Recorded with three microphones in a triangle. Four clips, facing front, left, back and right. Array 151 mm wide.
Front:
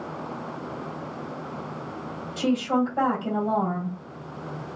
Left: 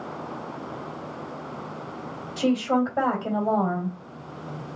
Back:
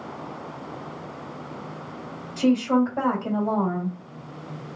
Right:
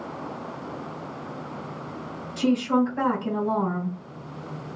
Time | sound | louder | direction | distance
2.4 | a woman speaking | right 1 dB, back 3 dB | 100° left | 2.5 m